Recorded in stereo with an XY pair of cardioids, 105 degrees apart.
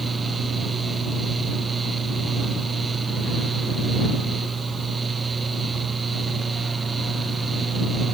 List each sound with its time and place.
0.0 s a fan: 30° right